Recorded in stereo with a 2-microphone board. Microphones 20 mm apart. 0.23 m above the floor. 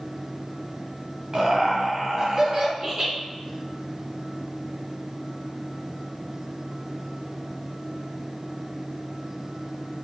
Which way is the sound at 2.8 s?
25° right (ahead or behind).